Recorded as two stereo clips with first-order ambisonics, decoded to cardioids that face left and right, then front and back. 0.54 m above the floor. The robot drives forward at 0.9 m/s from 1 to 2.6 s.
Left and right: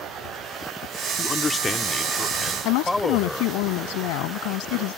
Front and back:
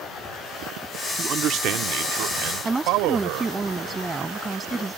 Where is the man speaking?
135° left; by 3.5 s 170° left.